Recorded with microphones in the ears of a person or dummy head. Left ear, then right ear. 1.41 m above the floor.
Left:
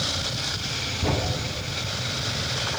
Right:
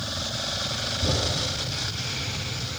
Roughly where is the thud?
Left.